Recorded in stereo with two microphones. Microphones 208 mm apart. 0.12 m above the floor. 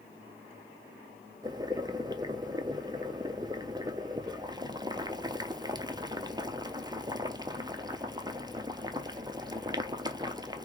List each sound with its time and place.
1.4 s boiling: 20° right (ahead or behind), 0.6 m